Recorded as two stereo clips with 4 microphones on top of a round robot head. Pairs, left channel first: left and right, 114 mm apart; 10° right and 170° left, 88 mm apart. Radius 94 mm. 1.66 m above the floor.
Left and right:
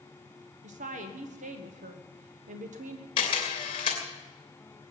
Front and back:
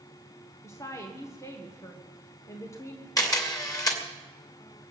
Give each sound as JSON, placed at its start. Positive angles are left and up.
{"t": 0.6, "sound": "a woman speaking", "azimuth_deg": -75, "distance_m": 1.3}
{"t": 3.2, "sound": "a camera shutter", "azimuth_deg": 40, "distance_m": 2.5}